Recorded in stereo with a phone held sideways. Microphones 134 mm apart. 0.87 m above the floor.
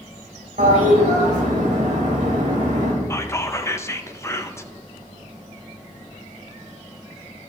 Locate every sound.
0.6 s a toilet flushing: 70° right (ahead or behind), 3 m
3.1 s whispering: 20° left (ahead or behind), 0.6 m